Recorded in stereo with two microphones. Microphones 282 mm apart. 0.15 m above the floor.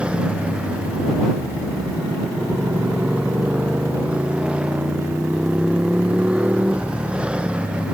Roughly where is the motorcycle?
Centre.